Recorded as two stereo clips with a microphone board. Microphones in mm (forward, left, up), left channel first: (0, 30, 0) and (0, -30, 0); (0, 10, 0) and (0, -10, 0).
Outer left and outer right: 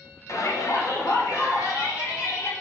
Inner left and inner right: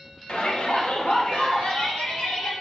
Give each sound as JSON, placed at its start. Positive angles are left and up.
{"t": 0.3, "sound": "a shout", "side_deg": 55, "distance_m": 1.2}